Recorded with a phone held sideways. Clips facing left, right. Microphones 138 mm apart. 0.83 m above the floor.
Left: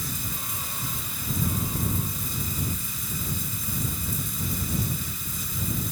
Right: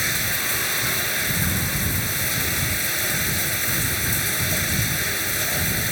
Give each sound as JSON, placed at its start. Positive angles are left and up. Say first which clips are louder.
{"t": 0.0, "sound": "running water", "louder": "right 6 dB", "side_deg": -80}